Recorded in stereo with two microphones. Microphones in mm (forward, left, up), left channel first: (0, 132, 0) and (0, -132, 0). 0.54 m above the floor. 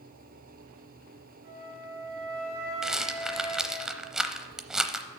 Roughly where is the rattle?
Centre.